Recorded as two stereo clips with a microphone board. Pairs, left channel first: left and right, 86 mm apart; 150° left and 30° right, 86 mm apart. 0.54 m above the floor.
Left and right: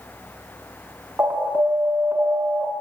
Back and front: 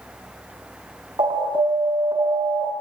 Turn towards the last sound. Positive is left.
turn(degrees=-20)